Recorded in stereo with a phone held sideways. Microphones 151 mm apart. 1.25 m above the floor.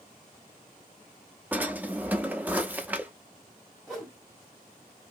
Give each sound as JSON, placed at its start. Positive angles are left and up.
{"t": 1.5, "sound": "a drawer", "side_deg": -10, "distance_m": 0.6}
{"t": 3.9, "sound": "a whoosh", "side_deg": 0, "distance_m": 1.9}